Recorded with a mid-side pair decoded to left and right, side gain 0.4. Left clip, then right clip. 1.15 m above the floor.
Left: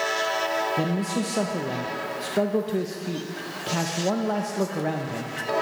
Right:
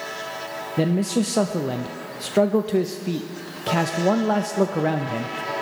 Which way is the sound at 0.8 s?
40° right.